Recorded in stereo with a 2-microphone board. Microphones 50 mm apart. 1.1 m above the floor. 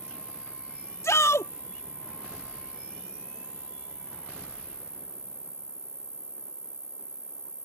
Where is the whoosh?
No whoosh in this recording.